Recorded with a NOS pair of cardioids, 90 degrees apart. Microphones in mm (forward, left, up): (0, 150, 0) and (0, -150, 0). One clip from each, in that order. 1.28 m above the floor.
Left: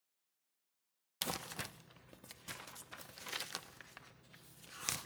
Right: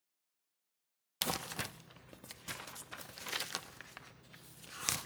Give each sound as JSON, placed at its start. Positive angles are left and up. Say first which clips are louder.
{"t": 1.2, "sound": "crumpling", "louder": "right 4 dB", "azimuth_deg": -20, "distance_m": 0.6}